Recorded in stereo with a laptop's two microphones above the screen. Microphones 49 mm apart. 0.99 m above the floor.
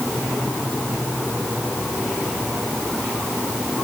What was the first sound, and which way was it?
Only background noise.